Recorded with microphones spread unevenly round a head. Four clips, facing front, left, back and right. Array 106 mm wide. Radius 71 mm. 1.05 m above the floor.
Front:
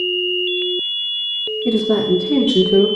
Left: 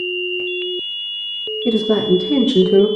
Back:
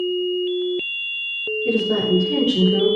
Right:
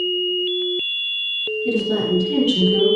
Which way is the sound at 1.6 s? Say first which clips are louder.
Left 5 dB, front 4 dB; 60° left.